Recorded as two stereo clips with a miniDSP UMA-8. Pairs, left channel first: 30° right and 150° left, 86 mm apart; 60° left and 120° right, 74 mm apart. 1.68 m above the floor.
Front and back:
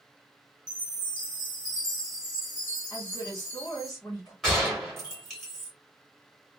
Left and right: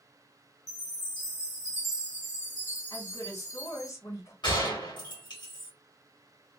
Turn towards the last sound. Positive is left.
turn(degrees=55)